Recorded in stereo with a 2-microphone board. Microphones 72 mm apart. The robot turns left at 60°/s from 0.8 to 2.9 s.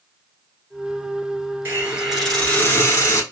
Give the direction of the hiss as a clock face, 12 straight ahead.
5 o'clock.